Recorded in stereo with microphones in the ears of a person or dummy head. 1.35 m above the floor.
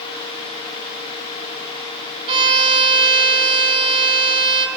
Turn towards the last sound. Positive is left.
turn(degrees=-35)  # may be behind; listen again after turning